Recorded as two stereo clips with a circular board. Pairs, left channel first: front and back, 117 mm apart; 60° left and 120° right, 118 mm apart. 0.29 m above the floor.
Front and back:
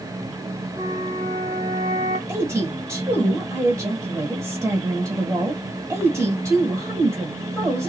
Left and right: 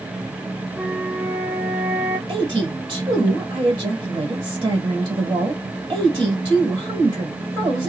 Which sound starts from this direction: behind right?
A woman speaking, at 2.3 s.